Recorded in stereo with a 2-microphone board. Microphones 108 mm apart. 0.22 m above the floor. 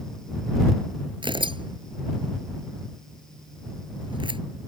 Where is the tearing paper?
50° right (ahead or behind).